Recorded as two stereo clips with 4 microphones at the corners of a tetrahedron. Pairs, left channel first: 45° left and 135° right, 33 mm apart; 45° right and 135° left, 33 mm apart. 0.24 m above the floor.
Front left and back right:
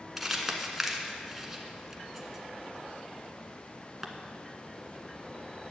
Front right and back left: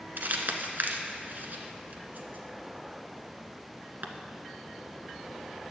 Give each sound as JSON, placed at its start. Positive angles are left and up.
{"t": 0.2, "sound": "crumpling", "azimuth_deg": 145, "distance_m": 1.2}